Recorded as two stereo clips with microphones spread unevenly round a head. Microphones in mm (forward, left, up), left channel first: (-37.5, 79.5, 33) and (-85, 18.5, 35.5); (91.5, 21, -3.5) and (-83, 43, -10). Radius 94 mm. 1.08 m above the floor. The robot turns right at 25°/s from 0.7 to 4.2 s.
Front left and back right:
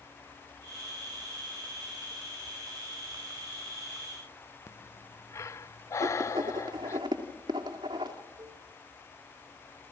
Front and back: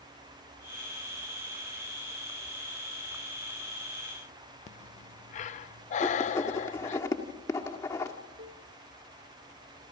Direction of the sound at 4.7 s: 25° left.